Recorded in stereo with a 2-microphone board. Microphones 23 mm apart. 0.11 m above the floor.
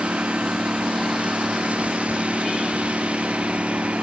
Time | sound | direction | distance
0.0 | a lawn mower | 85° right | ?